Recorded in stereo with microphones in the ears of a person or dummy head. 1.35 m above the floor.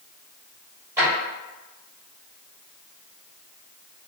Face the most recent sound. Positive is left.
turn(degrees=-20)  # may be behind; listen again after turning